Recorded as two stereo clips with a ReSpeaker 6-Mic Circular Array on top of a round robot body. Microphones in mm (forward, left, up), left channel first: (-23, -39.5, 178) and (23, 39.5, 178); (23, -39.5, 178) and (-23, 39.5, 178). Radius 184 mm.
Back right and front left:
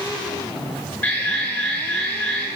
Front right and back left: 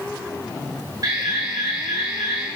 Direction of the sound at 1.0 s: 170° left.